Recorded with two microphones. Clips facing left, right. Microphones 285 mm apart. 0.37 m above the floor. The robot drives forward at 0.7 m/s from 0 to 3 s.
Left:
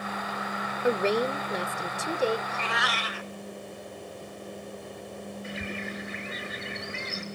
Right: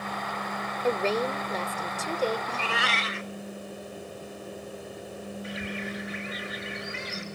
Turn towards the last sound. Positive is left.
turn(degrees=30)  # may be behind; listen again after turning